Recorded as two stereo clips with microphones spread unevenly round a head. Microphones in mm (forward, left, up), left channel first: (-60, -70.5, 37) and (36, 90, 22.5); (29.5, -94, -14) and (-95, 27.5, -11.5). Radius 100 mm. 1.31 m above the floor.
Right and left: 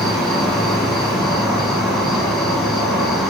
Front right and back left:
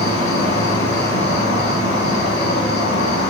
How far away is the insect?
About 2.5 m.